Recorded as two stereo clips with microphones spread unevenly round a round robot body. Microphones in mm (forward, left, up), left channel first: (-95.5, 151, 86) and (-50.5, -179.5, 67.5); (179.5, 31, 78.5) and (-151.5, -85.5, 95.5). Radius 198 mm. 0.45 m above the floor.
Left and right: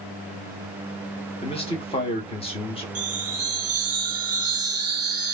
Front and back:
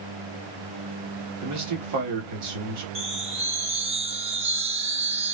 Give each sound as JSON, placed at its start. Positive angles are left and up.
{"t": 1.4, "sound": "a man speaking", "azimuth_deg": 170, "distance_m": 1.2}
{"t": 3.0, "sound": "a chime", "azimuth_deg": -90, "distance_m": 0.9}